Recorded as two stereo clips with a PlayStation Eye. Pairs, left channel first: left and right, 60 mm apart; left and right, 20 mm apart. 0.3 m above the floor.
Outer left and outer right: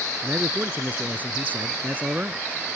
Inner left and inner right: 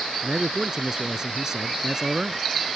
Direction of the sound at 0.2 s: 30° right (ahead or behind).